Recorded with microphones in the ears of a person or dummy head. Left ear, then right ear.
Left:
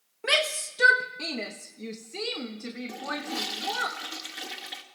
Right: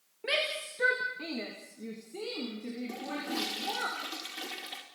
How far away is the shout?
About 1.5 m.